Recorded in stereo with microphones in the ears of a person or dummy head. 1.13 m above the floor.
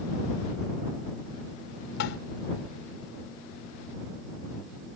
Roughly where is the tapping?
Left.